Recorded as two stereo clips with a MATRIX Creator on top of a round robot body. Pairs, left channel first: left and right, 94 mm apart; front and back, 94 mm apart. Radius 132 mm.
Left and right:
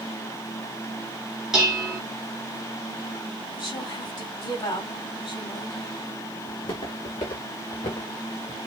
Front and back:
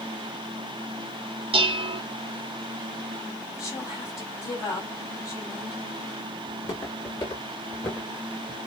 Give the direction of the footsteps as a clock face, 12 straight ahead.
10 o'clock.